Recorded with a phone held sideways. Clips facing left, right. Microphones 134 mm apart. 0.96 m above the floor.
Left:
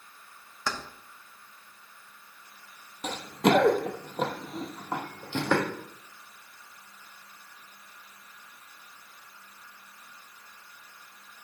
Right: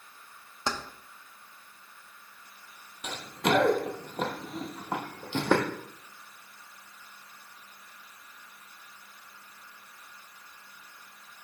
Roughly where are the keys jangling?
Right.